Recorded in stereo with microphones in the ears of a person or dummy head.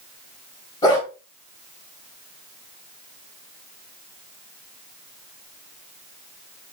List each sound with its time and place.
0.8 s a dog barking: 20° left (ahead or behind), 3 m